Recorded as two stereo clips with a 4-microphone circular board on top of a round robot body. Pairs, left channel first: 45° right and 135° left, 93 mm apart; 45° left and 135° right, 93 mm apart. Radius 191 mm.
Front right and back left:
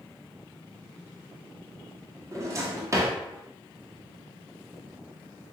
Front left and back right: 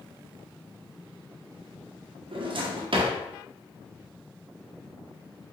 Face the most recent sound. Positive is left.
turn(degrees=-165)